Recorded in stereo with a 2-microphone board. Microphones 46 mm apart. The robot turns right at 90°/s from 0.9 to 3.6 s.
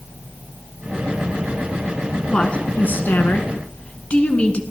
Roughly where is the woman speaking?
Ahead.